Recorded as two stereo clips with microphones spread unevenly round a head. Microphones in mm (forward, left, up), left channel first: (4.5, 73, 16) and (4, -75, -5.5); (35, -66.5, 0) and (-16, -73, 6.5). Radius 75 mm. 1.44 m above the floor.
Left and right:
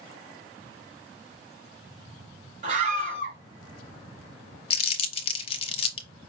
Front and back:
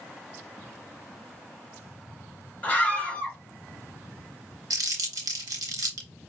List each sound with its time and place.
2.6 s a scream: 55° right, 3.5 m
4.7 s crumpling: 145° left, 0.6 m